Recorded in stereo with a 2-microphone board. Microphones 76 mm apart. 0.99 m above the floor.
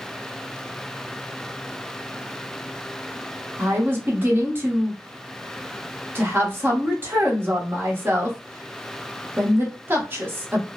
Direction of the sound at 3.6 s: 30° right (ahead or behind).